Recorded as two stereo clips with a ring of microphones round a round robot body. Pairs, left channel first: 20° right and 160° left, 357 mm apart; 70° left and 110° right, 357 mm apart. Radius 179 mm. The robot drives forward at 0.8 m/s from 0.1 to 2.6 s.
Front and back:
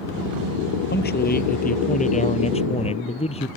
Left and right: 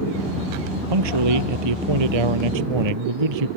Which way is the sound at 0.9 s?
85° right.